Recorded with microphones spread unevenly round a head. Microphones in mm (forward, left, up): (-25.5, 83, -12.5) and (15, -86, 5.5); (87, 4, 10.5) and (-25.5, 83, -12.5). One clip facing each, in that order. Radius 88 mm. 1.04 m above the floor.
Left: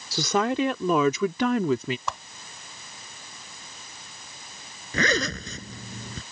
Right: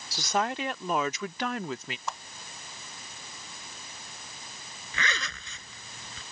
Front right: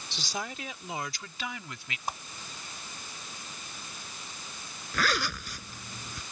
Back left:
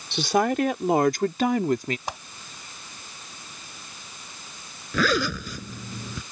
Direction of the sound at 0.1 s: 120° left.